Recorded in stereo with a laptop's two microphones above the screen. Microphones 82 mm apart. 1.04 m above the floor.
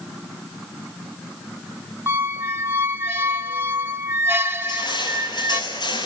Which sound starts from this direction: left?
Crushing, at 4.6 s.